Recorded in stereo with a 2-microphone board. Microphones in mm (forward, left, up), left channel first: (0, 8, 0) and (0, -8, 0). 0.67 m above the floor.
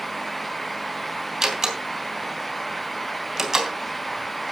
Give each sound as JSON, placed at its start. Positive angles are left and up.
{"t": 1.4, "sound": "a door slam", "side_deg": -35, "distance_m": 3.0}